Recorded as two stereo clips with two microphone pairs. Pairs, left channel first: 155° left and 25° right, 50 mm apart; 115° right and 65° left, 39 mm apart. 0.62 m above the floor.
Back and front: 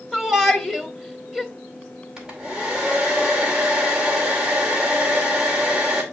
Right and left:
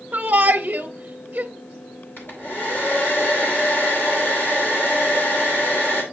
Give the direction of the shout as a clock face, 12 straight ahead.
10 o'clock.